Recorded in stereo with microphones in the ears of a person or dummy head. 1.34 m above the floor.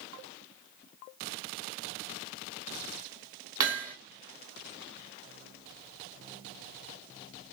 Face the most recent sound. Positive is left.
turn(degrees=-20)  # may be behind; listen again after turning